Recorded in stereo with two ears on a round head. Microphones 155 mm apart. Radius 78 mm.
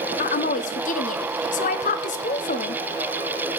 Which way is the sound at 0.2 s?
45° left (ahead or behind).